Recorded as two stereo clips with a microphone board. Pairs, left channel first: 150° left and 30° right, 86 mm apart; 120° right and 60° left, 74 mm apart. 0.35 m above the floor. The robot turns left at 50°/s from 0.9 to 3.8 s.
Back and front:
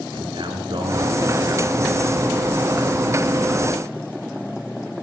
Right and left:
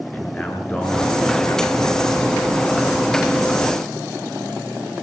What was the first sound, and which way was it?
A man speaking, 50° right.